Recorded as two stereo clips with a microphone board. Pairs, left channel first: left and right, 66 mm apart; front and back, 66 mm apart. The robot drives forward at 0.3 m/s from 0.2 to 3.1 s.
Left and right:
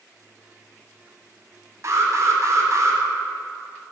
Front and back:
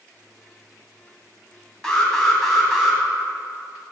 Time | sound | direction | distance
1.8 | an alarm | 80° right | 1.5 m